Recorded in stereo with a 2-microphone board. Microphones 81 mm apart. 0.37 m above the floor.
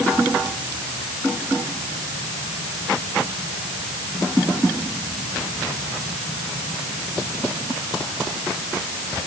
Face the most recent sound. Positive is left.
No sound to turn to.